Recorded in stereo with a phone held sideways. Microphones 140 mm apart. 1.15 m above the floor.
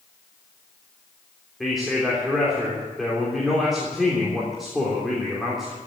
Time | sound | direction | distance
1.6 | a man speaking | centre (ahead or behind) | 3.5 m